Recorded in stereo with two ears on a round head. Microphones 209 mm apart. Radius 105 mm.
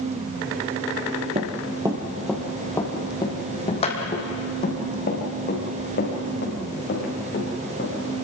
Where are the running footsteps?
30° right (ahead or behind), 2.5 m; by 8.2 s 50° left (ahead or behind), 10 m.